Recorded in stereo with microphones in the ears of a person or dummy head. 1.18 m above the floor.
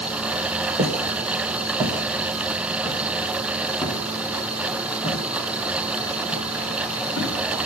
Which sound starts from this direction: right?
Footsteps, at 0.8 s.